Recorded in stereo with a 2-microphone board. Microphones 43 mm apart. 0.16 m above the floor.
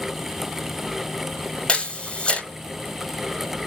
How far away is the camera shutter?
About 0.8 m.